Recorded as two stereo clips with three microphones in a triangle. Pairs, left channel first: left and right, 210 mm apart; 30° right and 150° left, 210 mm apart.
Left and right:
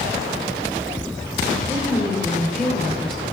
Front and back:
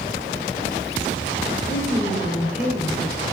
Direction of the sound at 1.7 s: Straight ahead.